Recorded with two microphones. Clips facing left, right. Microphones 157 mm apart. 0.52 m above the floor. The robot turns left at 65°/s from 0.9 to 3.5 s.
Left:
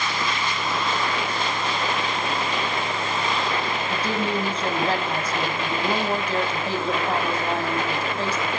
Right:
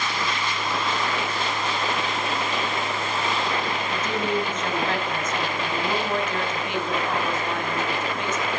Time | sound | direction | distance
3.9 | a woman speaking | 35° left (ahead or behind) | 4.5 m